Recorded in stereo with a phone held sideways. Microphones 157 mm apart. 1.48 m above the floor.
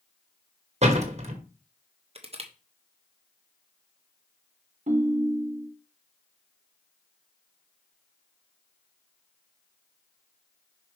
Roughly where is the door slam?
Right.